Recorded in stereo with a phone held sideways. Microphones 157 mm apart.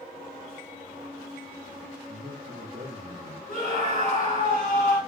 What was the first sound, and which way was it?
A man speaking, 80° right.